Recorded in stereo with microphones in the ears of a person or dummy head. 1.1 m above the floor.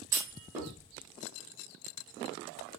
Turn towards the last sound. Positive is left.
turn(degrees=-15)  # may be behind; listen again after turning